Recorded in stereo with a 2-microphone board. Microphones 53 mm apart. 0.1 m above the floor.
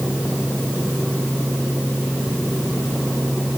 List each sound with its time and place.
Only background noise.